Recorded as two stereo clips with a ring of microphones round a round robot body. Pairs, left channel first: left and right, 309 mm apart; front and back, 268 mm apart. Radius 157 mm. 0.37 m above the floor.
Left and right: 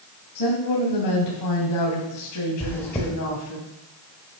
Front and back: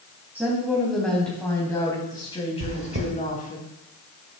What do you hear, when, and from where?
0.3 s a woman speaking: 95° left, 3 m; by 3.6 s 55° left, 3.5 m
2.6 s chewing: 170° left, 2 m